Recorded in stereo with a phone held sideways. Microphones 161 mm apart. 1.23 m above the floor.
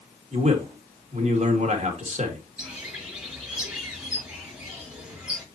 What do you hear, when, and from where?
0.3 s a man speaking: 45° right (ahead or behind), 2 m
2.6 s a bird: 5° right (ahead or behind), 6.5 m